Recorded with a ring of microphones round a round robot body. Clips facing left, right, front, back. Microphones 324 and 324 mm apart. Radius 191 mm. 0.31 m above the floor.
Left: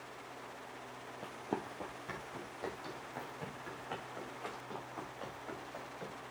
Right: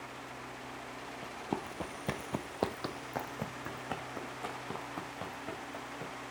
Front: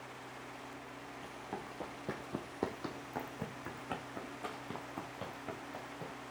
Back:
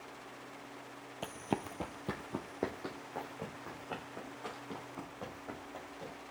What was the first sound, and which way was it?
Running footsteps, 175° right.